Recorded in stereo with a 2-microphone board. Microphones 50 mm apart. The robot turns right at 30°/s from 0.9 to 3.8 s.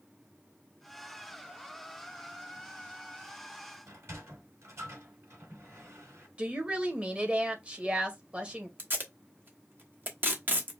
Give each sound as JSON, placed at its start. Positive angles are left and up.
{"t": 3.9, "sound": "a sliding door", "side_deg": -65, "distance_m": 3.5}
{"t": 6.4, "sound": "a woman speaking", "side_deg": -25, "distance_m": 1.3}
{"t": 8.8, "sound": "tape being pulled", "side_deg": -40, "distance_m": 1.1}